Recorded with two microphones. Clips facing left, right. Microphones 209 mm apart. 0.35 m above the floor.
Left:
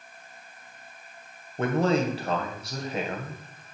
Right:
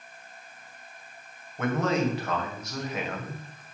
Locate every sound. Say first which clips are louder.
1.6 s a man speaking: left 2 dB; 35° left (ahead or behind), 1.9 m